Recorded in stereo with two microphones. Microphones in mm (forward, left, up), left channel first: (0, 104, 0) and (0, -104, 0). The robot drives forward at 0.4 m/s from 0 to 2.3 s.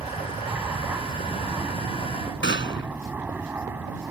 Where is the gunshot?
70° left (ahead or behind).